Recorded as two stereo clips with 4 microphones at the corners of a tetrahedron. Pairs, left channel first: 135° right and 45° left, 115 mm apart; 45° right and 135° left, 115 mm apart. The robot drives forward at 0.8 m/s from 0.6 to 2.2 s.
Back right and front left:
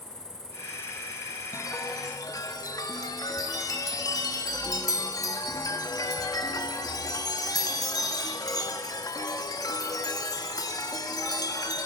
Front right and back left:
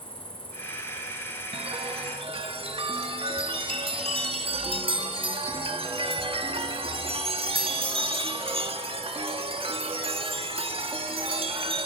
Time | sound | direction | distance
0.0 | an insect | 125° right | 3 m
1.5 | a chime | 165° left | 1.1 m